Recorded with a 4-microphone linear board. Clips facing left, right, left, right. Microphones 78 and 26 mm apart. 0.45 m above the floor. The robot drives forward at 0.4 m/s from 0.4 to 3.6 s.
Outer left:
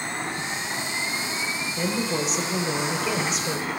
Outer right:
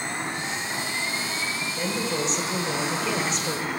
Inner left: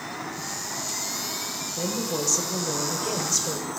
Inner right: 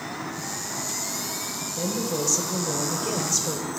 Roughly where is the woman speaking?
Centre.